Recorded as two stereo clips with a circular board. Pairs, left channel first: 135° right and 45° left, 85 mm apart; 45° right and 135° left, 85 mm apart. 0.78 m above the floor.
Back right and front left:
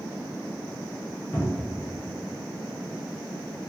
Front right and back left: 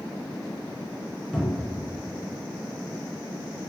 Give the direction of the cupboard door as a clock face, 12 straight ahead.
5 o'clock.